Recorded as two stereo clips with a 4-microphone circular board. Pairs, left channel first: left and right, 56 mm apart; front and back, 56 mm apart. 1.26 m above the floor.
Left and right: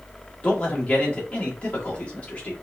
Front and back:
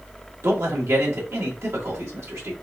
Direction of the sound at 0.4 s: 160° left.